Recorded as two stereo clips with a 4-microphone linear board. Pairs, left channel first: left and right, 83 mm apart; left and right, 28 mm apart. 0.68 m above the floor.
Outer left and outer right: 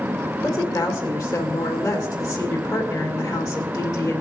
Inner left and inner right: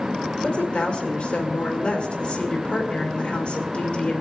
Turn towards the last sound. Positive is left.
turn(degrees=55)  # may be behind; listen again after turning